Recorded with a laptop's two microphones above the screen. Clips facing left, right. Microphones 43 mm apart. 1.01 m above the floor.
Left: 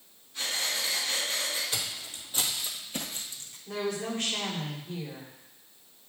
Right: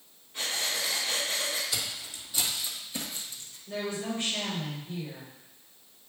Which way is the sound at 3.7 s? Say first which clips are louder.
Left 1 dB; 80° left.